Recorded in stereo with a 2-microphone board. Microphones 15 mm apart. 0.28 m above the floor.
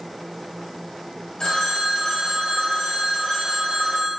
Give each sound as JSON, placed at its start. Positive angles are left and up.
{"t": 1.4, "sound": "a phone ringing", "side_deg": 45, "distance_m": 0.8}